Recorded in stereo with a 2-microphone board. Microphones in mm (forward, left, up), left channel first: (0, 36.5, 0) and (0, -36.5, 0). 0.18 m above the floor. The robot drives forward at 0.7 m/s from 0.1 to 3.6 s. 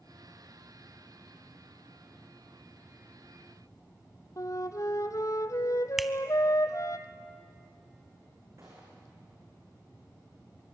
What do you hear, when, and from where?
4.4 s a flute: 45° left (ahead or behind), 0.9 m
6.0 s a finger snap: 5° right (ahead or behind), 0.8 m
8.6 s a gunshot: 45° right (ahead or behind), 7.5 m